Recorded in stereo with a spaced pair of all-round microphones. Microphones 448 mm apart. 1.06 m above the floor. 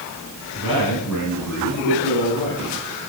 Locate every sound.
0.6 s a man speaking: 50° left (ahead or behind), 10 m; by 2.7 s 45° left (ahead or behind), 11 m